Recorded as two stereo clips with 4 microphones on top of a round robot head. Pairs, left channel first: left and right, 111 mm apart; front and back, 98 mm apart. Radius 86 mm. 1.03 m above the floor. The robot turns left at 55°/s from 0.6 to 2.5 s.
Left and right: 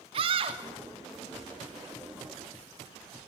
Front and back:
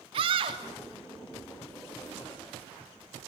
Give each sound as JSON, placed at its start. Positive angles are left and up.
{"t": 0.1, "sound": "a scream", "azimuth_deg": -135, "distance_m": 2.5}